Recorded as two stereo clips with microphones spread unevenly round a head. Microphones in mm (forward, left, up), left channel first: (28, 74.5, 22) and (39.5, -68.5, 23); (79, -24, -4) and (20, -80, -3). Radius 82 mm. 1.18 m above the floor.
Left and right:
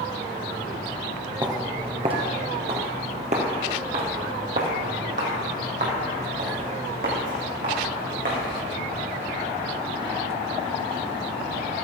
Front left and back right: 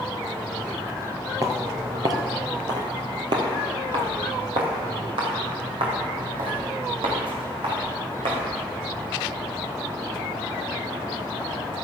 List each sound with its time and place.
1.4 s footsteps: 140° right, 1.4 m; by 8.4 s 130° right, 5 m